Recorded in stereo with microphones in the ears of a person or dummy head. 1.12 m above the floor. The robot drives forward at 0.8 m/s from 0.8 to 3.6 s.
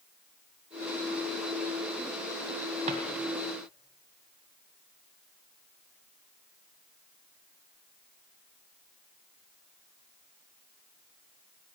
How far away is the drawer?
About 1.9 m.